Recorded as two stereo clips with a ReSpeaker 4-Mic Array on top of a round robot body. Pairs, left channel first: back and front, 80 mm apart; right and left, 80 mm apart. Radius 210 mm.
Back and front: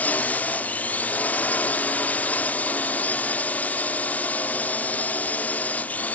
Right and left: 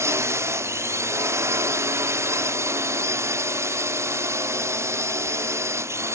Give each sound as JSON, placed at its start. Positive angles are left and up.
{"t": 0.0, "sound": "a drone", "azimuth_deg": 120}